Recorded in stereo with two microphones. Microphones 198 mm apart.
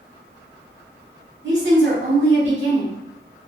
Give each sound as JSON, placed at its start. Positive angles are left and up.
{"t": 1.4, "sound": "a woman speaking", "side_deg": -65, "distance_m": 1.2}